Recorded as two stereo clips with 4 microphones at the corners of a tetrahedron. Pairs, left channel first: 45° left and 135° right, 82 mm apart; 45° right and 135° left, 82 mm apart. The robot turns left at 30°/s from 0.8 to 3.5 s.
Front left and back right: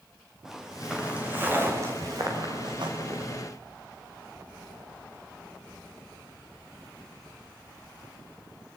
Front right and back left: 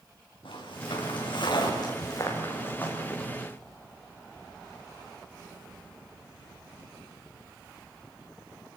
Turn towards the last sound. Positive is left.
turn(degrees=-135)